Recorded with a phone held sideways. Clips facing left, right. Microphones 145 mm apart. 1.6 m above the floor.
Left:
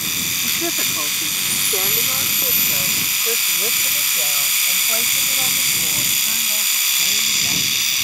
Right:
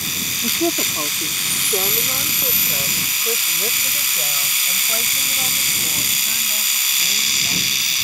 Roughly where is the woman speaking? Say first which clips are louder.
Right 7 dB; right.